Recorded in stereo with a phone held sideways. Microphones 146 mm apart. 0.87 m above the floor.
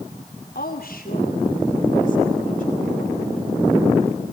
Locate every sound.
0.6 s a woman speaking: 75° left (ahead or behind), 2.5 m; by 3.4 s 55° left (ahead or behind), 5.5 m